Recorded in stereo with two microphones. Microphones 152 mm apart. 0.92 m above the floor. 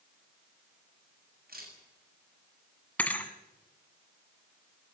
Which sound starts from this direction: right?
A camera shutter, at 1.5 s.